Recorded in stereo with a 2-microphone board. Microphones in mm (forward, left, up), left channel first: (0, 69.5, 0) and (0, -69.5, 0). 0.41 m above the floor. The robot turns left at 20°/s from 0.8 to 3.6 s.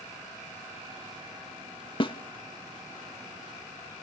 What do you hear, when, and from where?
2.0 s a snare drum: 35° left (ahead or behind), 0.6 m; by 2.1 s 40° left (ahead or behind), 0.6 m